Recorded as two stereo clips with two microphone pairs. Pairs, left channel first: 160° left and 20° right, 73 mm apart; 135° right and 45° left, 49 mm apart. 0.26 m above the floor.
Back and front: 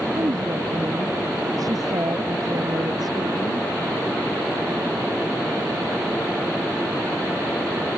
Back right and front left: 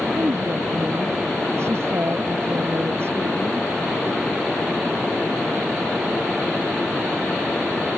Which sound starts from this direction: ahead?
A woman speaking, at 0.1 s.